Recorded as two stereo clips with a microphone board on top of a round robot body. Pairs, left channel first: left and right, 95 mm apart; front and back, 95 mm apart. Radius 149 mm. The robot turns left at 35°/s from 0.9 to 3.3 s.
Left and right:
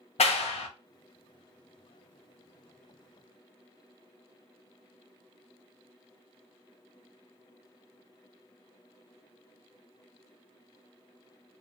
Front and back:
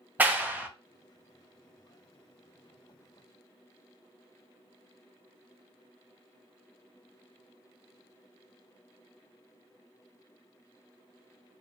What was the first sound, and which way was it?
A clap, 105° left.